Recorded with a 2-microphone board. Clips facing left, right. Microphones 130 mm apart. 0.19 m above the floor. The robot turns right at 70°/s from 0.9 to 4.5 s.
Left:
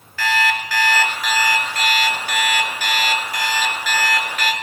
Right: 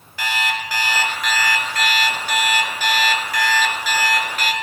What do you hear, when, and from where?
0.2 s an alarm clock: 20° right, 1.8 m; by 4.5 s 130° right, 1.8 m